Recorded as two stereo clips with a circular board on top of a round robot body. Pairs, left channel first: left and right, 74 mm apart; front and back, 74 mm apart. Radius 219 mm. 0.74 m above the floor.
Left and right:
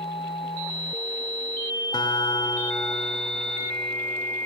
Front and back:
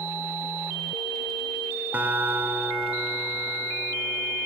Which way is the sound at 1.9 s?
115° left.